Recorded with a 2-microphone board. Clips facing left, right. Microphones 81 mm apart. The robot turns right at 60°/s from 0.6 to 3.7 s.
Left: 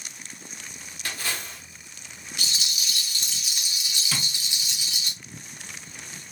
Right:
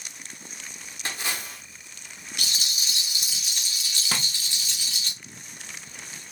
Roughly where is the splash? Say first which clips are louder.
Even; ahead right.